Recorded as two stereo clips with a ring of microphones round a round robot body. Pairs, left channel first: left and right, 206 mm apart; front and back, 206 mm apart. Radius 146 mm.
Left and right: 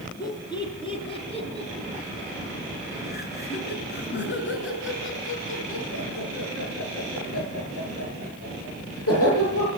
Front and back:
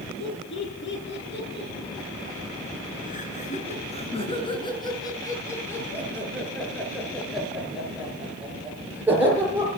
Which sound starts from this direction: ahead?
Laughter, at 0.2 s.